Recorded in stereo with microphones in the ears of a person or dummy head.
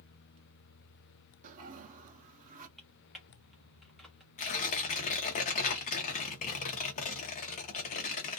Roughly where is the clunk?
No clunk in this recording.